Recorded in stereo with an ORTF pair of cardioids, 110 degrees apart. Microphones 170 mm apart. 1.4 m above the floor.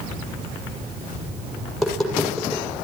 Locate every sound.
1.7 s tapping: straight ahead, 6.5 m